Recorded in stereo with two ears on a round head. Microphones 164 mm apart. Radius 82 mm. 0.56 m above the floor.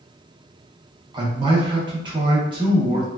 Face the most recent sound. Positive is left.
turn(degrees=-25)  # may be behind; listen again after turning